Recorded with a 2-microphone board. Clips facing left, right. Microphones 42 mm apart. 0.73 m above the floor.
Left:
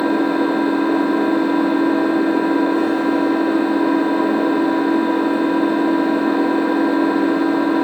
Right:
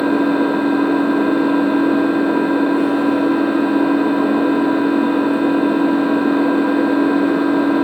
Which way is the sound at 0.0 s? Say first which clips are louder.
Right 2 dB; 25° right (ahead or behind).